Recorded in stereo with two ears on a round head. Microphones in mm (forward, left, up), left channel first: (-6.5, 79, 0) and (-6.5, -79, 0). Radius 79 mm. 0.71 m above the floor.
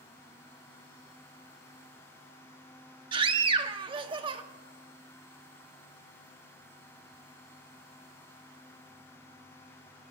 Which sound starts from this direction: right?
A scream, at 3.1 s.